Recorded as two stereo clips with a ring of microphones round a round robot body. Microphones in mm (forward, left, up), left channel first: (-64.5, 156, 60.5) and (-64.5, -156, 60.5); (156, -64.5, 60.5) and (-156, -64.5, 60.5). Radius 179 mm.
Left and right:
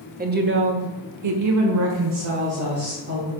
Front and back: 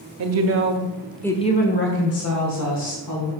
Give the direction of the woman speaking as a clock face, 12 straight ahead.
5 o'clock.